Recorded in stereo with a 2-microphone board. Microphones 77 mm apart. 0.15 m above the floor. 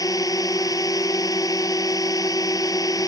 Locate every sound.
0.0 s a drone: 50° left (ahead or behind)